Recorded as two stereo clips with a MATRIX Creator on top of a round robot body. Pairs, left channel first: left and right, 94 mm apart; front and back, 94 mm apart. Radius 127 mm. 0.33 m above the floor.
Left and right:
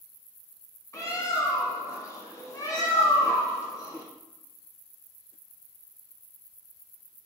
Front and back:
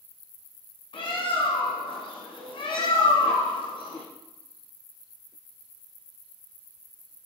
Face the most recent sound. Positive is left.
turn(degrees=30)